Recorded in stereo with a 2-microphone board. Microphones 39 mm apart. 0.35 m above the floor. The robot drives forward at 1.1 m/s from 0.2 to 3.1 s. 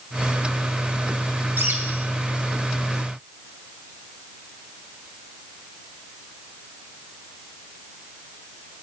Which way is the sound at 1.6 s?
60° right (ahead or behind).